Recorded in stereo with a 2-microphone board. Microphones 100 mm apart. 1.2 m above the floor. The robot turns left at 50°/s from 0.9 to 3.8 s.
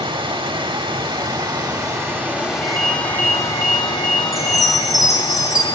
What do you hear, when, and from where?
0.0 s running water: 90° right, 1.1 m; by 5.8 s 125° left, 1.1 m
2.6 s a ringtone: 60° right, 2.5 m; by 4.9 s 120° right, 2.5 m
4.3 s a chime: centre (ahead or behind), 1.4 m